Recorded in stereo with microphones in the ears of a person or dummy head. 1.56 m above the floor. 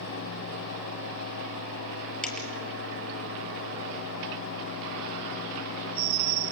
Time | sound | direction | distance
2.2 | a dropped coin | centre (ahead or behind) | 4.5 m